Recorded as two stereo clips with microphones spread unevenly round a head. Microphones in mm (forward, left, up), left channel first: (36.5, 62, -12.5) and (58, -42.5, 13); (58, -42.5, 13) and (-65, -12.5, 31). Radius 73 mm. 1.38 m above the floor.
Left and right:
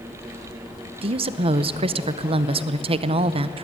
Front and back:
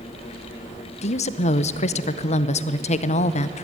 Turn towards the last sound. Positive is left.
turn(degrees=-55)